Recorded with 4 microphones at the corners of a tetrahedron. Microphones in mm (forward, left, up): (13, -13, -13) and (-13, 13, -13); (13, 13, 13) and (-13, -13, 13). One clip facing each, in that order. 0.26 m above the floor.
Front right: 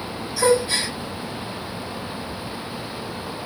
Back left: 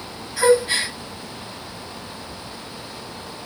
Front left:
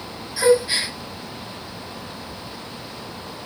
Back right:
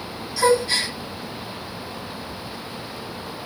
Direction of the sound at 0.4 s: 115° left.